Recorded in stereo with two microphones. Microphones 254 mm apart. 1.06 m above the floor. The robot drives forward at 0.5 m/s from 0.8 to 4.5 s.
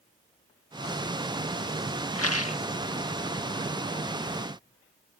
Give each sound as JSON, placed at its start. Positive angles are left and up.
{"t": 2.1, "sound": "a rattle", "side_deg": 70}